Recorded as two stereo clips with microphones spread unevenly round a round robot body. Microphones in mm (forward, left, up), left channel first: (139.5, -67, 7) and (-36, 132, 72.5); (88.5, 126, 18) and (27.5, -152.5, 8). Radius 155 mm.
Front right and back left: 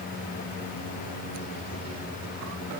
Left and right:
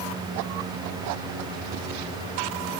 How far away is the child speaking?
No child speaking in this recording.